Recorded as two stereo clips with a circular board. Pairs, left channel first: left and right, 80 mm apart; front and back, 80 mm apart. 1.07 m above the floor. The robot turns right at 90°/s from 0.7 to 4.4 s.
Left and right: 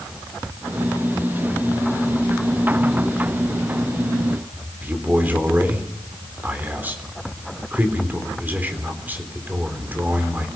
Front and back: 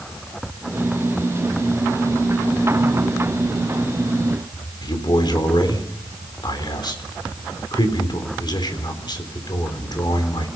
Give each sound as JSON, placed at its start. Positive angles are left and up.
{"t": 4.8, "sound": "a man speaking", "azimuth_deg": -25, "distance_m": 3.5}